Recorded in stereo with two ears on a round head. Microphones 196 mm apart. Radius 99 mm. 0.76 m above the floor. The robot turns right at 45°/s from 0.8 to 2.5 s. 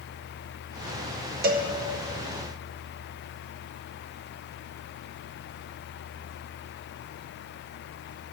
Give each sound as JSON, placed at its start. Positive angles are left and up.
{"t": 1.4, "sound": "a cowbell", "side_deg": -45, "distance_m": 0.8}